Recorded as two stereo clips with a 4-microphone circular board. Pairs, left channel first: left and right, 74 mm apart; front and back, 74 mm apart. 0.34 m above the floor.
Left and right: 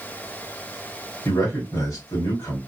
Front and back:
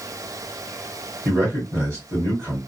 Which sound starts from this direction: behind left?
A man speaking, at 1.2 s.